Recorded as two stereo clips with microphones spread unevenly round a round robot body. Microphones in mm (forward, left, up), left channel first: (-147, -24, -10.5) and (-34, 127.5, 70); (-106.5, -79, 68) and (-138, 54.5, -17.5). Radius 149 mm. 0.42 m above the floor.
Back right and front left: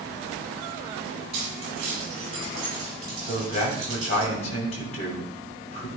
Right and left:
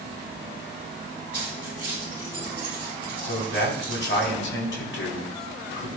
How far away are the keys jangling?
About 5.5 m.